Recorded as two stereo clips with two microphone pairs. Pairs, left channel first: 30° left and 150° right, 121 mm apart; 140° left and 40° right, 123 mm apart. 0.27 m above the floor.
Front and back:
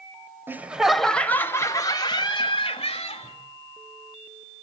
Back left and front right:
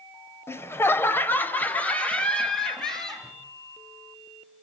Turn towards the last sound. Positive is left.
turn(degrees=50)